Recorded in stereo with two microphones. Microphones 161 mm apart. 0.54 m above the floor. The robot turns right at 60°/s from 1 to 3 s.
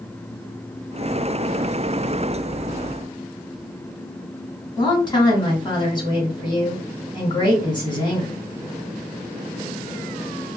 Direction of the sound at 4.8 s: 25° left (ahead or behind).